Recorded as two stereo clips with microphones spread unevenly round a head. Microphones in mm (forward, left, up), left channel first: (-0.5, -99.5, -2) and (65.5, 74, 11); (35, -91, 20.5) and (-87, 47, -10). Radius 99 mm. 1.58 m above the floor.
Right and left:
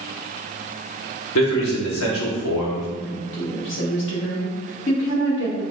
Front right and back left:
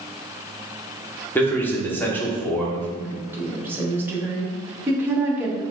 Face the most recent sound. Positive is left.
turn(degrees=-145)